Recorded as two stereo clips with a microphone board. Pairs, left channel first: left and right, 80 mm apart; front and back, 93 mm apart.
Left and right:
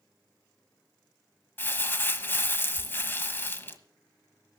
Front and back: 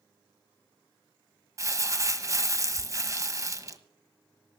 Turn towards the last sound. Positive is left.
turn(degrees=140)